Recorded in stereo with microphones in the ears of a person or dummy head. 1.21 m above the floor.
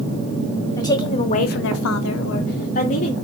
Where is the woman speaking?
15° left (ahead or behind), 1.2 m; by 3.1 s 40° left (ahead or behind), 1.5 m.